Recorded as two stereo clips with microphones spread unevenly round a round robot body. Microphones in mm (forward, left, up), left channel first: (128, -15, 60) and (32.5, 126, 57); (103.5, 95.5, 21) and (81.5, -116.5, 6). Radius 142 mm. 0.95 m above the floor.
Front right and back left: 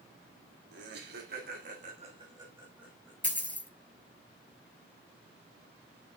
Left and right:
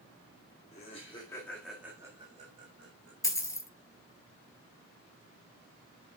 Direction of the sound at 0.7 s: 150° left.